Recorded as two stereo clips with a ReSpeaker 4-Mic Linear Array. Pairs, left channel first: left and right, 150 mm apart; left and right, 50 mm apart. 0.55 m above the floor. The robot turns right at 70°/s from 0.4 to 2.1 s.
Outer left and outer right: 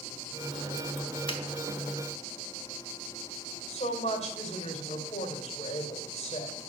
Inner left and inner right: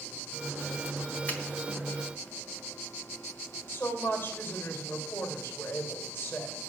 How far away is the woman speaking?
About 2.5 m.